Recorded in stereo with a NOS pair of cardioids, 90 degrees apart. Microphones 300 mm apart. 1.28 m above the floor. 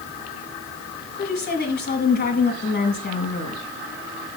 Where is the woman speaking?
35° left, 2.5 m.